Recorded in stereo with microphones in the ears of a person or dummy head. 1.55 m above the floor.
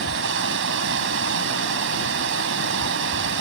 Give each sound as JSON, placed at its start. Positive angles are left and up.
{"t": 0.0, "sound": "running water", "side_deg": -70}